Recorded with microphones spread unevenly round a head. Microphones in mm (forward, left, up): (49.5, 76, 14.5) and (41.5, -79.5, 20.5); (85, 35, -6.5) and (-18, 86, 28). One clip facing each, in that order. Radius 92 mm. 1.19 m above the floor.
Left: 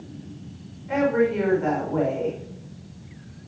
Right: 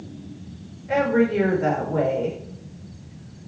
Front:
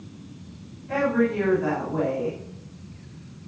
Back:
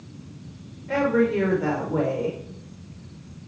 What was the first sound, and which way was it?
A woman speaking, 155° right.